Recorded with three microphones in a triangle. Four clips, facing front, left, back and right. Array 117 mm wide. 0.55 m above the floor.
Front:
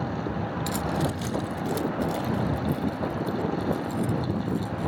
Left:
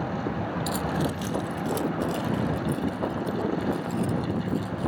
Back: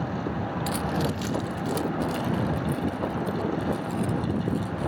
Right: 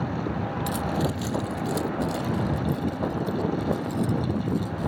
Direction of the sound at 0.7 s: 170° left.